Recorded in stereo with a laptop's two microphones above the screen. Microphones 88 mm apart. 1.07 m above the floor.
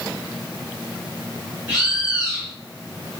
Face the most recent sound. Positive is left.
turn(degrees=-15)  # may be behind; listen again after turning